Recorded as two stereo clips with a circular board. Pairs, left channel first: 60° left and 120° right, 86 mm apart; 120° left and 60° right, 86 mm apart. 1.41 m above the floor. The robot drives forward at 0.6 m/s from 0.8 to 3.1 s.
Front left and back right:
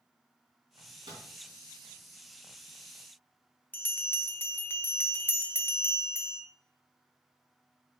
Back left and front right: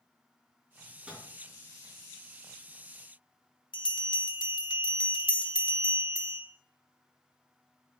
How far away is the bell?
About 0.7 m.